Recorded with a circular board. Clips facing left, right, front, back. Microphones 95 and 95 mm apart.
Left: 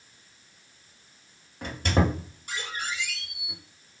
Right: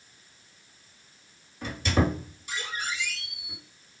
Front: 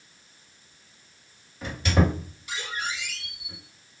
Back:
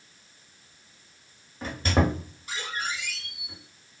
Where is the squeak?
130° left, 1.2 m.